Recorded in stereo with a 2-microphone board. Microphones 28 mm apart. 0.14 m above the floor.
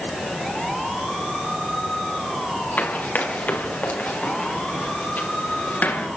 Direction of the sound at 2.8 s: 65° left (ahead or behind).